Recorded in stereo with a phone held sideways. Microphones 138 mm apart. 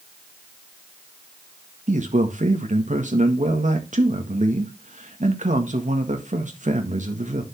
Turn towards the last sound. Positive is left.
turn(degrees=-65)  # may be behind; listen again after turning